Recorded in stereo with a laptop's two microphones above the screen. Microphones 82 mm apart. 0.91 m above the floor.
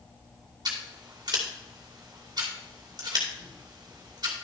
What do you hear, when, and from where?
0.7 s scissors: 55° right (ahead or behind), 2.5 m